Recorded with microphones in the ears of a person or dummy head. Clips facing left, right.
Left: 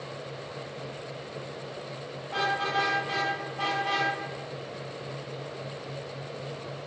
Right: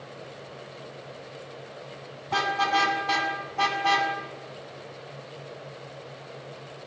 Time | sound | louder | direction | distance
2.3 | a car horn | right 4 dB | 80° right | 7 m